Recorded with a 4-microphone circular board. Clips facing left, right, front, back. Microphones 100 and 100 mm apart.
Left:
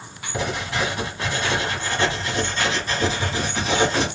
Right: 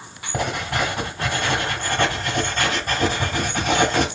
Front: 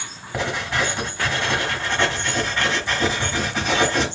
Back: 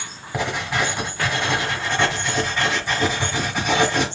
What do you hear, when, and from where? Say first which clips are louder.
0.3 s writing: right 1 dB, even; 100° right, 1.8 m